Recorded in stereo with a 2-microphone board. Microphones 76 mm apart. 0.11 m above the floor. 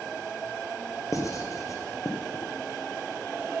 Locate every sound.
1.1 s writing: 45° left (ahead or behind), 1.5 m